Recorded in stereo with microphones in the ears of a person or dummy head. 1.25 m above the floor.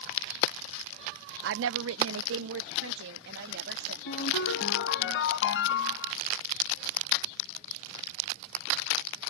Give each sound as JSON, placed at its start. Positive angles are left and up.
{"t": 1.4, "sound": "a woman speaking", "side_deg": -70}
{"t": 4.1, "sound": "a ringtone", "side_deg": 80}